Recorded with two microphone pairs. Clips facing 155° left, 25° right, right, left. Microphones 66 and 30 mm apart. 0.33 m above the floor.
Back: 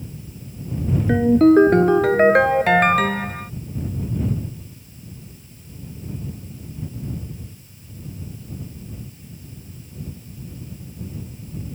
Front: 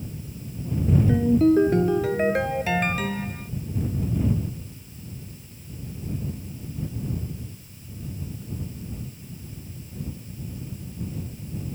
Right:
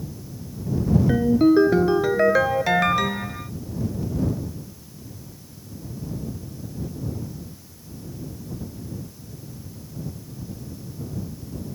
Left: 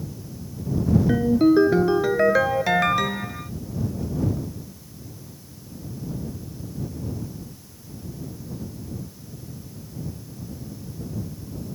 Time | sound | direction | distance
1.1 | a ringtone | 175° right | ?